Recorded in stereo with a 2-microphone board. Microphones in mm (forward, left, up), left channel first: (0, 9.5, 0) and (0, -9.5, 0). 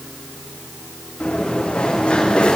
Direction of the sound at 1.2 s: 80° left.